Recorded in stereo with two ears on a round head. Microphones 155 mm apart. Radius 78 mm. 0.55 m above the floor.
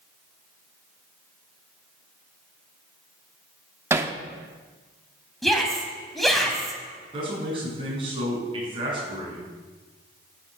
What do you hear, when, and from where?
3.9 s hammering: 15° right (ahead or behind), 0.9 m
5.4 s a shout: centre (ahead or behind), 3 m
7.1 s a man speaking: 30° right (ahead or behind), 6.5 m